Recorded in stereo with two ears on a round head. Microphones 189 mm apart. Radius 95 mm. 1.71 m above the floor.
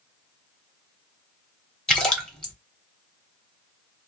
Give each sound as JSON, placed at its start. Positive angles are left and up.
{"t": 1.9, "sound": "a splash", "side_deg": 5, "distance_m": 0.7}